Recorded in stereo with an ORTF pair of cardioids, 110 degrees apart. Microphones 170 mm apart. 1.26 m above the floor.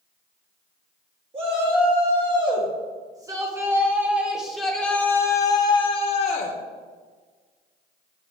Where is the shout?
35° right, 2.5 m; by 6.6 s 50° left, 1.2 m.